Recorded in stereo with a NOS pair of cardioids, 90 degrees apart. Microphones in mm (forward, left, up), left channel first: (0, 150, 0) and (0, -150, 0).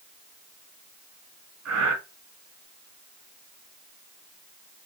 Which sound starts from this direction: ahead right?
Breathing, at 1.6 s.